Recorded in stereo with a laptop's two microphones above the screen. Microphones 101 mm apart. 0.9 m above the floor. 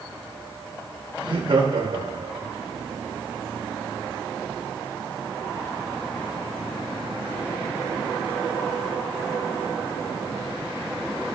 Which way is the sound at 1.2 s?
65° right (ahead or behind).